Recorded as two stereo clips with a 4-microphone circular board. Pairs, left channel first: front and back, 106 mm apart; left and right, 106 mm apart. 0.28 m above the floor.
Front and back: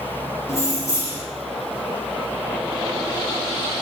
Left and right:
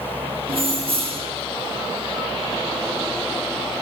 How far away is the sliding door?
No sliding door in this recording.